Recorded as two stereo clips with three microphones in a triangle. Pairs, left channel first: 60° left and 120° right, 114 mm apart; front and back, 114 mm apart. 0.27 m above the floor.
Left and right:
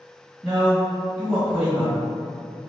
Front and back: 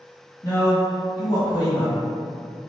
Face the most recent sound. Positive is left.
turn(degrees=-45)